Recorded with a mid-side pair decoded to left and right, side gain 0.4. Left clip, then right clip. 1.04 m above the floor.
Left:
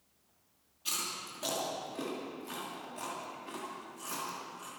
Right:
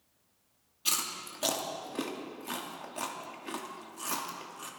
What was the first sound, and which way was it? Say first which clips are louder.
Chewing: right 4 dB; 60° right.